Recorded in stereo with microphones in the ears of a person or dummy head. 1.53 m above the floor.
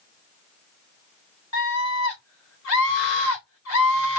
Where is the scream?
80° left, 1.4 m.